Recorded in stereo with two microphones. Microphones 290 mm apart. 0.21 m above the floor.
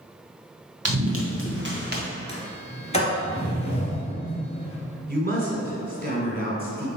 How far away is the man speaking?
About 2 m.